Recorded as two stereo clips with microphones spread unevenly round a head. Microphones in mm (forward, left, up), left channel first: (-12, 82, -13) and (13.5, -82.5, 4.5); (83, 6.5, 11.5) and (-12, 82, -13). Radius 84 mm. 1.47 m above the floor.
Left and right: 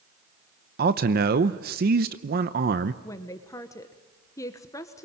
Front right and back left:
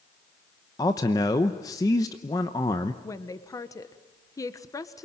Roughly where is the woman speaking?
Ahead left.